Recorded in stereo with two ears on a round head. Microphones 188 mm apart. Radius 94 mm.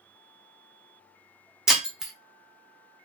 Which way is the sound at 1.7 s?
Centre (ahead or behind).